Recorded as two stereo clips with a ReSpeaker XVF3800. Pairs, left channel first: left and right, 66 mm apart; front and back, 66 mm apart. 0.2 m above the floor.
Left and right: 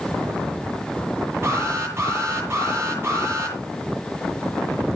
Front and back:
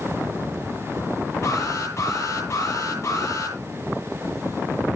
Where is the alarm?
40° right, 8.5 m.